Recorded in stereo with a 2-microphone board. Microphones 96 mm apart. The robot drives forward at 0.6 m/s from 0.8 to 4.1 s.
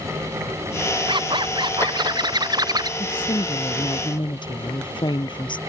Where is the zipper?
50° right (ahead or behind); by 2.9 s 35° right (ahead or behind).